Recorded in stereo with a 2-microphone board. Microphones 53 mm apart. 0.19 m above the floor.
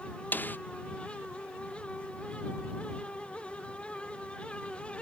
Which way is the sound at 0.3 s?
35° left (ahead or behind).